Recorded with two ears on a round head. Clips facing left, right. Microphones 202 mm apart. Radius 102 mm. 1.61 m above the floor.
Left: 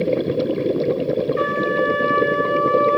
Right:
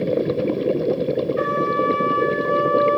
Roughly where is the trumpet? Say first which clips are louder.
Left 1 dB; left.